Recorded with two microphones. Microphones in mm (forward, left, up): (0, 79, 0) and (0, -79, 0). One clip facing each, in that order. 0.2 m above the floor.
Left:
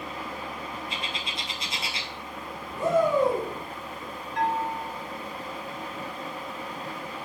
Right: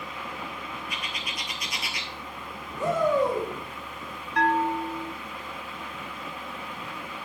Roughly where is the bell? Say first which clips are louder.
Right 4 dB; right.